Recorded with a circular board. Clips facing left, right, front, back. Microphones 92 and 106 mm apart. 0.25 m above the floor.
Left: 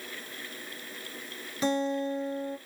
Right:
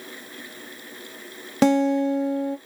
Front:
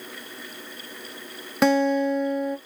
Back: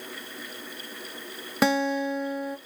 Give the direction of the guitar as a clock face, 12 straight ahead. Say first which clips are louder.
Right 10 dB, front 4 dB; 3 o'clock.